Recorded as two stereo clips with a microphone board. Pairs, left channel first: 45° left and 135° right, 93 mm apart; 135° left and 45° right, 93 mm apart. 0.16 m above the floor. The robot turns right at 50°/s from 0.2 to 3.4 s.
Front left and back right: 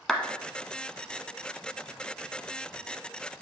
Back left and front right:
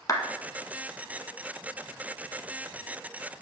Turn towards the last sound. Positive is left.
turn(degrees=-70)